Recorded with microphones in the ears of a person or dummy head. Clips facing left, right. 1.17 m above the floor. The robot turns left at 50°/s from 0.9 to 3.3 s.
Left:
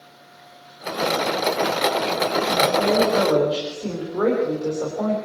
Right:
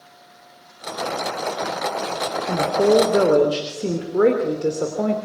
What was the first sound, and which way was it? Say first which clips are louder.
A woman speaking: right 5 dB; 110° right.